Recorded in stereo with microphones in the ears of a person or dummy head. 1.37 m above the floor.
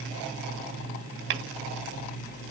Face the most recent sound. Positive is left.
turn(degrees=-60)  # may be behind; listen again after turning